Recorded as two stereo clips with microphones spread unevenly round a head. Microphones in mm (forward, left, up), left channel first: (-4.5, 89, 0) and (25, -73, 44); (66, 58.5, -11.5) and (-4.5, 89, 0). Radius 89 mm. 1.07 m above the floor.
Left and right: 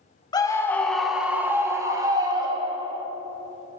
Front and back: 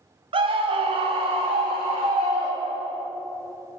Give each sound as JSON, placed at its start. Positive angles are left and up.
{"t": 0.3, "sound": "a scream", "azimuth_deg": 160, "distance_m": 0.9}